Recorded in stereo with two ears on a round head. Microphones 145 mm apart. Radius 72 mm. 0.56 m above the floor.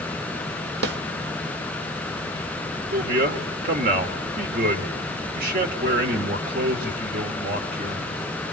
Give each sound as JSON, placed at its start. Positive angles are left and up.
{"t": 0.8, "sound": "a snare drum", "side_deg": -70, "distance_m": 1.2}
{"t": 2.9, "sound": "a man speaking", "side_deg": -55, "distance_m": 2.0}